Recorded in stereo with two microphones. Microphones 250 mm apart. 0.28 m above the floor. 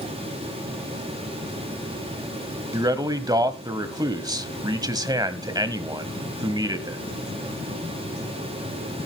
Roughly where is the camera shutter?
I don't hear a camera shutter.